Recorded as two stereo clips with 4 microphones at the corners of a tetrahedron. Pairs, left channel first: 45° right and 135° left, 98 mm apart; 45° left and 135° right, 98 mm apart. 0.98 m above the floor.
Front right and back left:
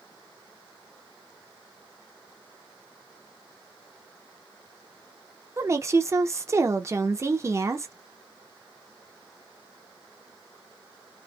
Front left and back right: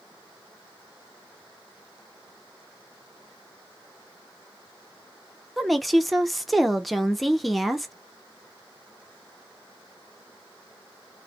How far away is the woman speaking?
About 0.5 m.